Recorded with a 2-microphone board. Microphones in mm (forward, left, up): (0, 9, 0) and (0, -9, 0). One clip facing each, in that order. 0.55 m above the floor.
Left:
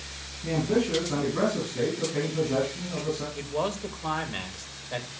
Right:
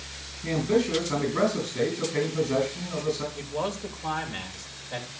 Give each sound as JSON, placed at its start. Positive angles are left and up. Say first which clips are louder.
{"t": 0.4, "sound": "a man speaking", "louder": "right 1 dB", "side_deg": -25, "distance_m": 8.0}
{"t": 3.4, "sound": "a man speaking", "louder": "left 1 dB", "side_deg": 15, "distance_m": 2.5}